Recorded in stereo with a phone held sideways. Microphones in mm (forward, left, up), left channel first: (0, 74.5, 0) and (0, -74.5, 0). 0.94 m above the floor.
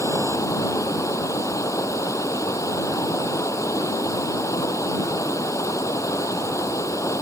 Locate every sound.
0.0 s running water: 20° left (ahead or behind)